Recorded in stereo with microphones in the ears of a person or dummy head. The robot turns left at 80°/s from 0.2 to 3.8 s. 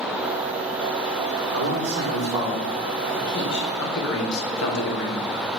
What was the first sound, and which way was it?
A man speaking, 90° right.